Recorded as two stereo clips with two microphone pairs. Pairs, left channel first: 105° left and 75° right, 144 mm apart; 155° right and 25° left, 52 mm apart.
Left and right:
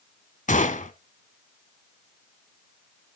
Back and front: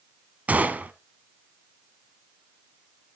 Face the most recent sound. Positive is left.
turn(degrees=80)